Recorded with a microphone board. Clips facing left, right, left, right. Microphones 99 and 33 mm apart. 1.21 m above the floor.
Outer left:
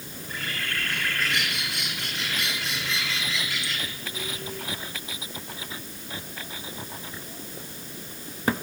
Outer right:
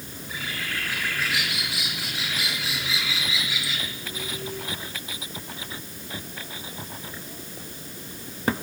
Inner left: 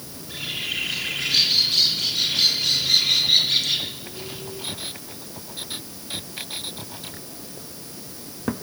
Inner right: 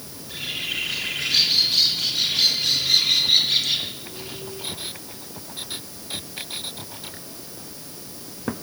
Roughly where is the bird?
Centre.